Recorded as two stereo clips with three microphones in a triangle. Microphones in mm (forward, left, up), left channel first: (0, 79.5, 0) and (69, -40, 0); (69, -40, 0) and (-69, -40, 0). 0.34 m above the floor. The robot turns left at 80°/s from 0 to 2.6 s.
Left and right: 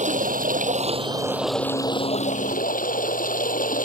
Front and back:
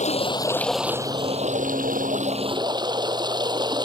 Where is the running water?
30° right; by 3.9 s 120° left.